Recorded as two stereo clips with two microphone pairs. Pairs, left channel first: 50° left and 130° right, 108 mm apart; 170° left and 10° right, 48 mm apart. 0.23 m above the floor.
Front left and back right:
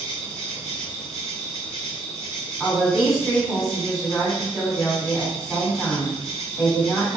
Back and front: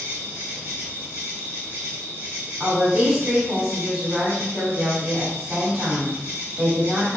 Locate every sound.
0.0 s an insect: 135° left, 1.6 m
2.6 s a woman speaking: 45° right, 1.4 m